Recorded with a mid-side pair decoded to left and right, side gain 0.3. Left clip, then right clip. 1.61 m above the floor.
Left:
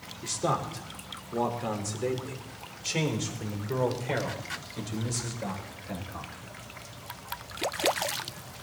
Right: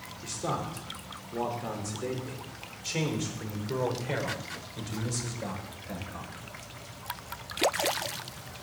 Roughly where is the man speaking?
Ahead left.